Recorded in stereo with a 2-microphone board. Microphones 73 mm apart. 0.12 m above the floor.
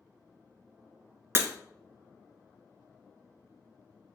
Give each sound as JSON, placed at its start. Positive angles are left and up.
{"t": 1.4, "sound": "breaking glass", "side_deg": -35, "distance_m": 0.5}